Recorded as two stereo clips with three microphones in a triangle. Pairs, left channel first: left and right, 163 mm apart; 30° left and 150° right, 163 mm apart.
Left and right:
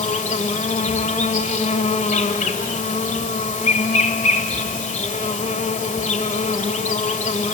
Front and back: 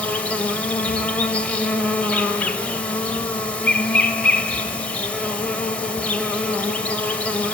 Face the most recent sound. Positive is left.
turn(degrees=110)